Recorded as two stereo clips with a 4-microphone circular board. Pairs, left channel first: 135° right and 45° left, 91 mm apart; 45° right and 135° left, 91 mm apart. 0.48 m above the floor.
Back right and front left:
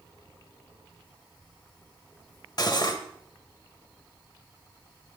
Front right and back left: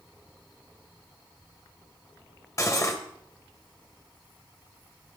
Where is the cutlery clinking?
100° right, 1.1 m.